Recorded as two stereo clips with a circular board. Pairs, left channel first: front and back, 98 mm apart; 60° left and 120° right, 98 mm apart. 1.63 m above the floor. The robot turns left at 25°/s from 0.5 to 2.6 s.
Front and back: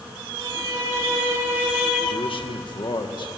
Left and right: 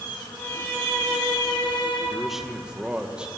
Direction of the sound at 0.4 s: 135° left.